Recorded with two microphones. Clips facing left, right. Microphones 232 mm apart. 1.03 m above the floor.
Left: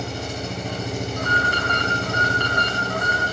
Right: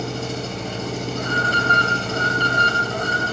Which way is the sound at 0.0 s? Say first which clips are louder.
Right 3 dB; 15° left (ahead or behind).